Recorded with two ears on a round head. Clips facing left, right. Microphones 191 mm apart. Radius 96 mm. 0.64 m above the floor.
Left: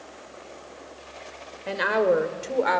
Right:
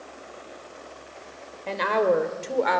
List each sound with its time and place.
1.7 s a woman speaking: 10° left (ahead or behind), 3 m; by 2.8 s centre (ahead or behind), 2.5 m